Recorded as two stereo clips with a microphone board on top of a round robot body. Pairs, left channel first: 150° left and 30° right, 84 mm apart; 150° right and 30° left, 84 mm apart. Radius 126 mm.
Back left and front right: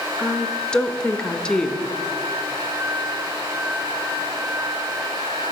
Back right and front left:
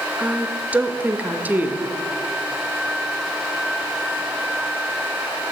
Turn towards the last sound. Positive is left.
turn(degrees=80)